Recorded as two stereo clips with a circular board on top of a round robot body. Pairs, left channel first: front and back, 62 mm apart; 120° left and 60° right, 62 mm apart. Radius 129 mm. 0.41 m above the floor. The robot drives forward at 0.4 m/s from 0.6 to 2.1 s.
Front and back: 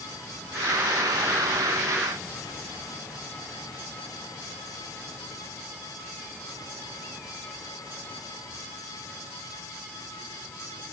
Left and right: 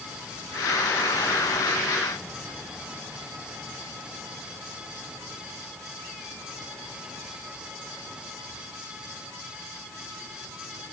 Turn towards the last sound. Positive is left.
No sound to turn to.